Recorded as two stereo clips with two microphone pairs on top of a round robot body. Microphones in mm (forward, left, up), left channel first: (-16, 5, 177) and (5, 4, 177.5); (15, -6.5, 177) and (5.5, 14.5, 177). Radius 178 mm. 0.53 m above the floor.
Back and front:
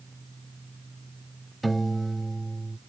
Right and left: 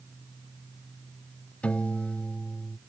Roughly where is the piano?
Right.